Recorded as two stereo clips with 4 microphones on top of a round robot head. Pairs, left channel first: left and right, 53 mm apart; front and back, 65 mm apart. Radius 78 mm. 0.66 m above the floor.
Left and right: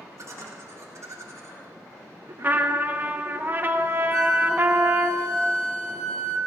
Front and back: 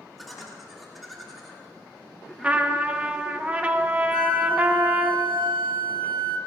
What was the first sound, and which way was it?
Laughter, 85° right.